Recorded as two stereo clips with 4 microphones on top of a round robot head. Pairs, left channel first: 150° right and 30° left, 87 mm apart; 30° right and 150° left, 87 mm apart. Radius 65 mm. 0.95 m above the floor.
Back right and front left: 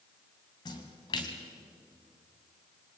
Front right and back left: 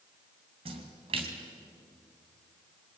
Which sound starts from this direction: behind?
A splash, at 0.7 s.